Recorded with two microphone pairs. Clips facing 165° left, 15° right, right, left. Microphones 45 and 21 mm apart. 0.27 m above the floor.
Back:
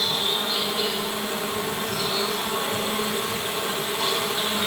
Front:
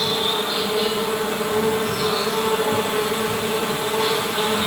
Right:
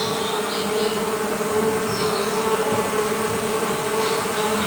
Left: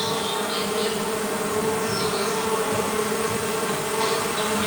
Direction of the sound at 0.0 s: 45° right.